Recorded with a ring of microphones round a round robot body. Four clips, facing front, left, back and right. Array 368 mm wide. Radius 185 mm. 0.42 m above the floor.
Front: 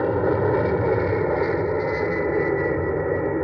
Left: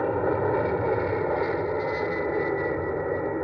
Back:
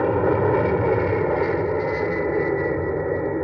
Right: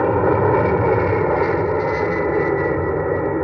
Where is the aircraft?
100° right; by 3.5 s 85° right.